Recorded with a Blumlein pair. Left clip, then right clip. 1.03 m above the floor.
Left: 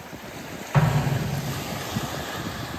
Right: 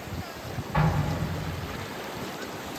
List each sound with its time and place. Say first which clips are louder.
0.7 s an explosion: left 3 dB; 30° left, 0.9 m